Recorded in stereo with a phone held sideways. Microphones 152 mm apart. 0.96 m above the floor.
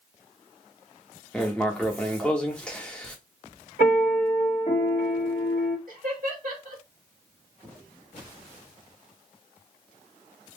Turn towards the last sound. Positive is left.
turn(degrees=-55)  # may be behind; listen again after turning